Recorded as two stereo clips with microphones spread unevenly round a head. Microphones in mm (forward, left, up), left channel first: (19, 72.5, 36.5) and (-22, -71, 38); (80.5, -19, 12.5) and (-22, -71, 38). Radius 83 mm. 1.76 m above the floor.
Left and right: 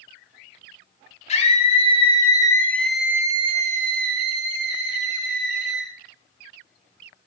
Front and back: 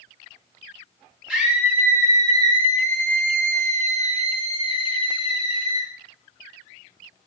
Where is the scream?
125° left, 3 m; by 5.9 s 100° right, 4 m.